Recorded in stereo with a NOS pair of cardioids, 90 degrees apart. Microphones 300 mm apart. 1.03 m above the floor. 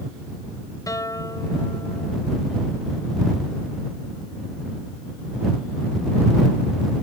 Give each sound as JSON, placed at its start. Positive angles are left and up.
{"t": 0.9, "sound": "a guitar", "azimuth_deg": 10}